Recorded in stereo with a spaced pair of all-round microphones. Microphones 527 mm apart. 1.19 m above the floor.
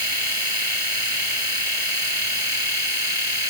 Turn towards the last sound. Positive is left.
turn(degrees=-75)  # may be behind; listen again after turning